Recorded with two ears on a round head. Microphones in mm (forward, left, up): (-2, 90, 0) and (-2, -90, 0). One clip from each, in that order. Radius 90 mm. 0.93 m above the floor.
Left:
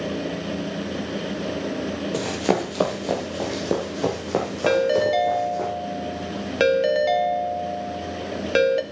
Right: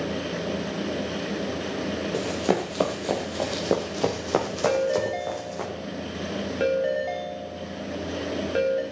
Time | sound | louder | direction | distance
2.1 | running footsteps | left 3 dB | 15° left (ahead or behind) | 1.5 m
4.7 | a ringtone | left 6 dB | 75° left (ahead or behind) | 1.3 m